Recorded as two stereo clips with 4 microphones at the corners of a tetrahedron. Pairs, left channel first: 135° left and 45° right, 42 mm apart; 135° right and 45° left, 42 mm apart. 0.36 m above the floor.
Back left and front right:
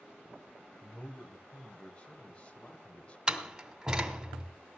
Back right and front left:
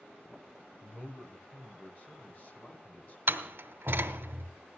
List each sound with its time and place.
0.8 s a man speaking: 170° right, 2 m
3.3 s a door slam: 20° left, 1.8 m